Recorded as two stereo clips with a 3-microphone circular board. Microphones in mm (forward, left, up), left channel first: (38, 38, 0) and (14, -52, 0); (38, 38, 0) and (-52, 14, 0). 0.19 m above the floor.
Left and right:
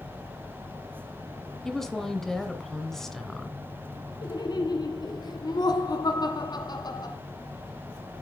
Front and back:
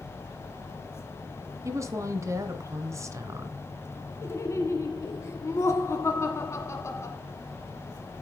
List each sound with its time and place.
1.6 s a woman speaking: 160° left, 1.9 m
4.2 s laughter: 65° left, 1.5 m